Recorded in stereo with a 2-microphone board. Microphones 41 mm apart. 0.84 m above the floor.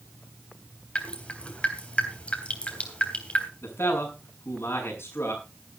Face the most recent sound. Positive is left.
turn(degrees=80)